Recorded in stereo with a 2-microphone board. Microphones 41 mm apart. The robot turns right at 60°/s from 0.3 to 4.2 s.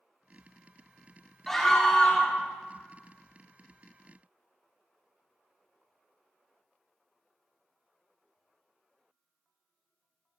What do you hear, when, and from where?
1.5 s a scream: 5° left (ahead or behind), 0.9 m; by 2.4 s 20° left (ahead or behind), 0.9 m